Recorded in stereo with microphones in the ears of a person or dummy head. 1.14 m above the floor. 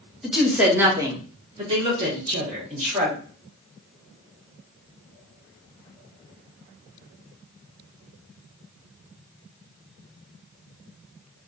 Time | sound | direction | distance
0.2 | a woman speaking | centre (ahead or behind) | 0.8 m